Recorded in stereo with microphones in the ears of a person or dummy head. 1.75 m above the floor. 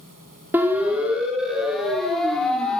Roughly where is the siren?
Centre.